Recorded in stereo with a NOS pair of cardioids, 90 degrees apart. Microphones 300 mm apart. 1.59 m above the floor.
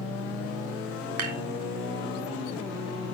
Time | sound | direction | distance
1.2 | dishes clattering | 70° right | 3 m